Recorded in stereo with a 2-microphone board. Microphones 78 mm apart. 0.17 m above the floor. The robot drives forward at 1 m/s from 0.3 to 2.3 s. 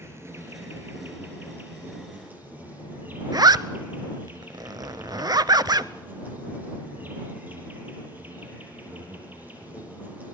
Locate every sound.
0.0 s an insect: 35° right (ahead or behind), 3.5 m; by 10.3 s 20° right (ahead or behind), 5 m
3.3 s a zipper: 60° right (ahead or behind), 0.6 m